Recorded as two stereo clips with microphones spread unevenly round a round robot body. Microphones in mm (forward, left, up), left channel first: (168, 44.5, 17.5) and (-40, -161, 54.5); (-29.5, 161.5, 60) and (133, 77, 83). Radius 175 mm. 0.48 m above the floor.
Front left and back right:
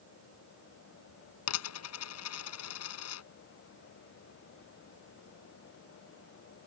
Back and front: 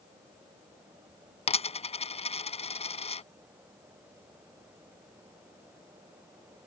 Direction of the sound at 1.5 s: 95° left.